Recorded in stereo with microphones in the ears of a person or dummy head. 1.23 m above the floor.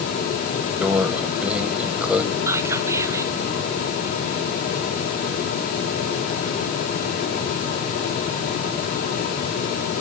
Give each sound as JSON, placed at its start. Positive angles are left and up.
{"t": 0.8, "sound": "a microwave", "side_deg": -5, "distance_m": 0.7}
{"t": 2.5, "sound": "whispering", "side_deg": -15, "distance_m": 0.7}